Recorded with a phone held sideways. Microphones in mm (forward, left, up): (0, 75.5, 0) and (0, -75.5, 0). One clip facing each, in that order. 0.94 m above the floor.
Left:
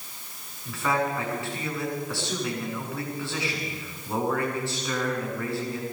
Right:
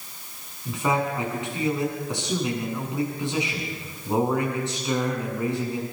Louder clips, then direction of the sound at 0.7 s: Right 2 dB; 20° right (ahead or behind).